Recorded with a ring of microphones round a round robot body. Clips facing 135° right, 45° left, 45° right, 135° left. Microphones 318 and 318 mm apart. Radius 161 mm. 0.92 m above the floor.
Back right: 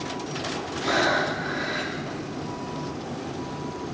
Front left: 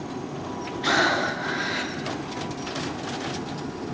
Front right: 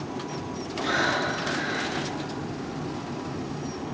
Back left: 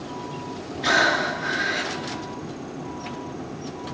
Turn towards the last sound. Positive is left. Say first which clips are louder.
# even, back left 3 dB
turn(degrees=105)